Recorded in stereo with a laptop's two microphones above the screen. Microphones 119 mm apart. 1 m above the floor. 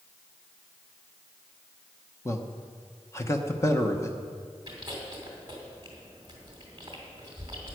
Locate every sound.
2.2 s a man speaking: 25° left (ahead or behind), 0.9 m
4.7 s chewing: 35° right (ahead or behind), 2.5 m